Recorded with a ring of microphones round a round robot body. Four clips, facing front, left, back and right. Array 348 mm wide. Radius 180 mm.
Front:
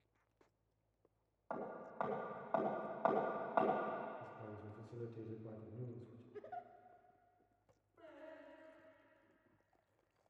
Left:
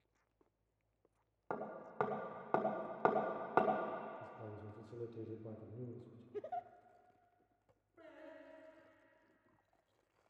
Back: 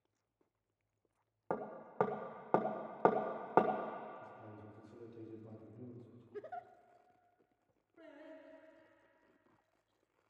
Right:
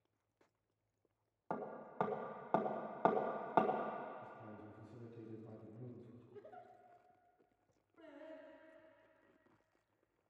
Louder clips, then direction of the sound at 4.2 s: Left 2 dB, front 1 dB; 70° left.